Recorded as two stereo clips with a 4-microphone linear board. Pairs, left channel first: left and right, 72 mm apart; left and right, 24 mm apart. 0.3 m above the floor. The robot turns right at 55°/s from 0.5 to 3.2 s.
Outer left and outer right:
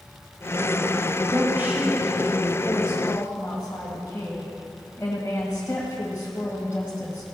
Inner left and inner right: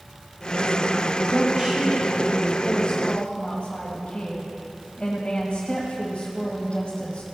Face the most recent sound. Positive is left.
turn(degrees=45)